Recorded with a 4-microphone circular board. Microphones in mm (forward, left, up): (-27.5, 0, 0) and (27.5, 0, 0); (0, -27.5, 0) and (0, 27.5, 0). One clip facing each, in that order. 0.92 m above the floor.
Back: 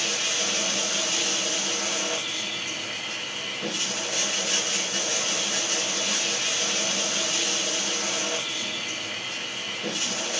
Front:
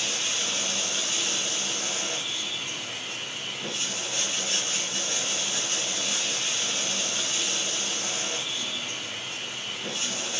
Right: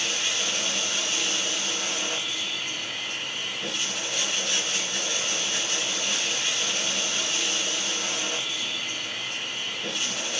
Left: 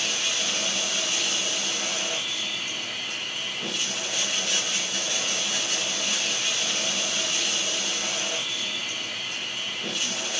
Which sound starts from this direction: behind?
Running water, at 0.0 s.